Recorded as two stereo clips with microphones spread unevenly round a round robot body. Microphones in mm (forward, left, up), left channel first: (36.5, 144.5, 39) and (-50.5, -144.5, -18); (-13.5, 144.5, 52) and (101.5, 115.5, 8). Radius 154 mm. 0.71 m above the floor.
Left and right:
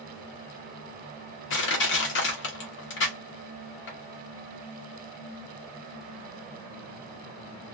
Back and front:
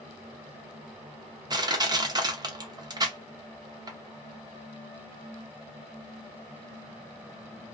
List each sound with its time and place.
1.5 s crushing: 20° left, 0.8 m